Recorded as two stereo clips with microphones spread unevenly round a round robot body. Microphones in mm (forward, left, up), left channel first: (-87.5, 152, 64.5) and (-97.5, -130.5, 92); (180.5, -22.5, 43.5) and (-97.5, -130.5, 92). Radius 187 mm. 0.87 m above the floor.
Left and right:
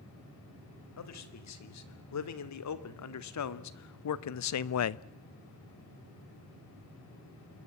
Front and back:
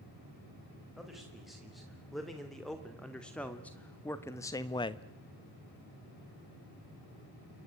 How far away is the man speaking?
About 4 m.